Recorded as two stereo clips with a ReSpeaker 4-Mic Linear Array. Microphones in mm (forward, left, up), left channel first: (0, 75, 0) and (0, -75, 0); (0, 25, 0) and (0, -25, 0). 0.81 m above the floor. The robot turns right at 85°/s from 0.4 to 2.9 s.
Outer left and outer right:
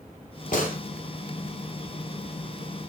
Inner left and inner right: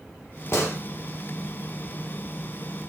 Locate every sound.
0.5 s a gunshot: 60° left (ahead or behind), 3 m; by 0.8 s 70° left (ahead or behind), 3 m